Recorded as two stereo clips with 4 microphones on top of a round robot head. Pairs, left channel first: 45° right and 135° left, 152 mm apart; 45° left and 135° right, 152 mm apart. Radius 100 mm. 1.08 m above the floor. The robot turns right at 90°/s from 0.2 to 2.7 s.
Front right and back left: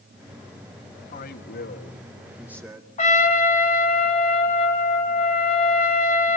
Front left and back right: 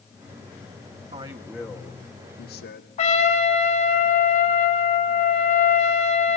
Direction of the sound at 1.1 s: 95° right.